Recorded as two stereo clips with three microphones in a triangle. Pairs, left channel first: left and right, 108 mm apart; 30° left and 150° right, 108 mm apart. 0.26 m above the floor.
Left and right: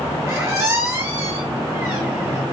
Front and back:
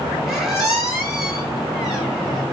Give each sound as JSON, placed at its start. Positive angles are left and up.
{"t": 0.3, "sound": "a squeak", "azimuth_deg": -70, "distance_m": 1.0}